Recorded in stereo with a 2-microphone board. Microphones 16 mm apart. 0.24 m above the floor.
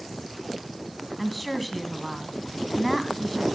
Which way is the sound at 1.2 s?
Centre (ahead or behind).